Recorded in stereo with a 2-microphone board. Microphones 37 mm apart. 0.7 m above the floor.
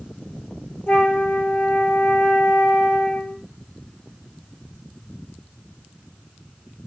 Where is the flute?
65° left (ahead or behind), 7 m.